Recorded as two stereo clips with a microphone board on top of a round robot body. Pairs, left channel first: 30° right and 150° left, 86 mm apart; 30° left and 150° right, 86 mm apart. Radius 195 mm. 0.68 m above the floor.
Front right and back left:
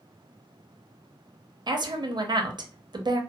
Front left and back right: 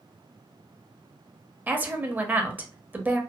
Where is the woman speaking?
145° left, 0.7 m.